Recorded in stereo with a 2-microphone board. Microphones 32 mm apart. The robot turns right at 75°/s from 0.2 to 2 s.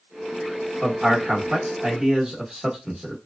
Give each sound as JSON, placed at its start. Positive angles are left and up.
{"t": 0.8, "sound": "a man speaking", "side_deg": -35, "distance_m": 1.1}